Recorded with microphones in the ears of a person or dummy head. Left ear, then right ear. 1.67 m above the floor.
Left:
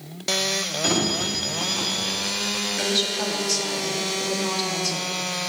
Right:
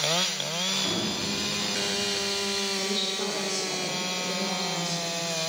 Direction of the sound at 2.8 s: 30° left (ahead or behind).